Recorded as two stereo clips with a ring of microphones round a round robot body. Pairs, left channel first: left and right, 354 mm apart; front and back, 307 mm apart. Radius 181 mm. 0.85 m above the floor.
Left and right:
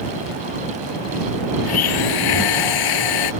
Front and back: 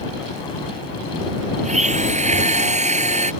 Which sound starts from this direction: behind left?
A blender, at 1.6 s.